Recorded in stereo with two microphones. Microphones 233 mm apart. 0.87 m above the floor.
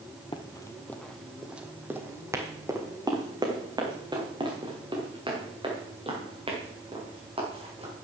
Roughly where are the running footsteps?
Left.